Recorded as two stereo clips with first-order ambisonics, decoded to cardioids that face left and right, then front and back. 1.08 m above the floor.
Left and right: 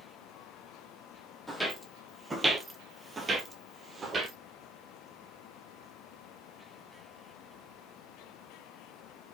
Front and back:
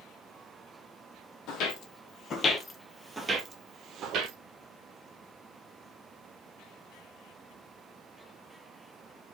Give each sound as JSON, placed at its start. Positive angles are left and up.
{"t": 1.5, "sound": "footsteps", "azimuth_deg": 0, "distance_m": 1.5}